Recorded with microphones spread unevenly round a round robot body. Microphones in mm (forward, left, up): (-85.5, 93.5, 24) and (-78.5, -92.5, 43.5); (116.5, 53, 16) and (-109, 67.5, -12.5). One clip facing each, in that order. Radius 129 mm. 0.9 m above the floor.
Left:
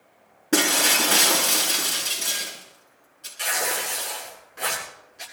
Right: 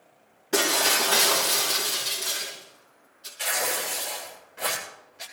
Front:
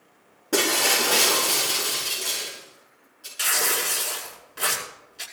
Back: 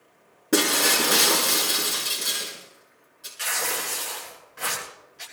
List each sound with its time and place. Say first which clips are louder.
0.5 s breaking glass: left 3 dB, back 2 dB; 110° left, 6 m
3.4 s tearing paper: left 1 dB, front 3 dB; 30° left, 8 m